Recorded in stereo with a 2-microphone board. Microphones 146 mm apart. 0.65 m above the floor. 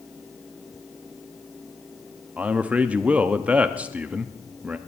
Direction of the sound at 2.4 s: 10° right (ahead or behind).